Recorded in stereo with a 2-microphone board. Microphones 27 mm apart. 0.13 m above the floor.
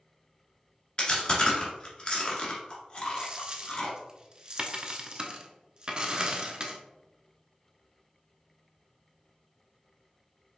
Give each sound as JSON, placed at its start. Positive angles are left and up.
{"t": 1.0, "sound": "chewing", "side_deg": 40, "distance_m": 1.4}
{"t": 3.2, "sound": "a dropped coin", "side_deg": -30, "distance_m": 0.6}